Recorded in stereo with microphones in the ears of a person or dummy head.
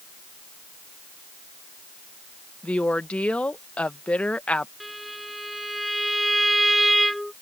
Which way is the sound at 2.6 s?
Centre (ahead or behind).